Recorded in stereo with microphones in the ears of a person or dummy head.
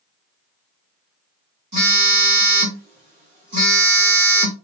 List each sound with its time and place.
1.7 s a phone buzzing: 35° right (ahead or behind), 1.8 m